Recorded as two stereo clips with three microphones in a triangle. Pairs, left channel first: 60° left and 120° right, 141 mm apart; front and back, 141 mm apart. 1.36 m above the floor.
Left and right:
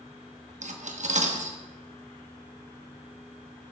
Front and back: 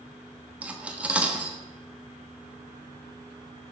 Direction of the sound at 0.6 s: 100° right.